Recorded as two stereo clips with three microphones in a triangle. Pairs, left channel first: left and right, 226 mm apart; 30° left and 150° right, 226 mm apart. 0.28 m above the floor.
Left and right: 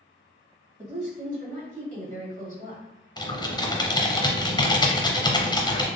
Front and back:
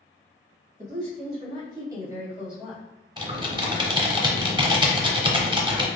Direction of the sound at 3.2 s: 155° left.